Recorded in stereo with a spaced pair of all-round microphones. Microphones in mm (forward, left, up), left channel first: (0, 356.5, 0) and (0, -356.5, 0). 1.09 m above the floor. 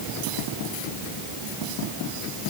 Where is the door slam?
I don't hear a door slam.